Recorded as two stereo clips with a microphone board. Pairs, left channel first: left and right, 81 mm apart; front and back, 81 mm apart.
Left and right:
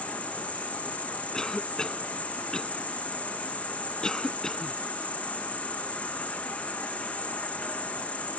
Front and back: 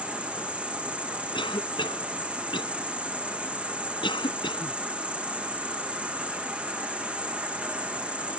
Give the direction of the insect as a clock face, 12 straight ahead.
8 o'clock.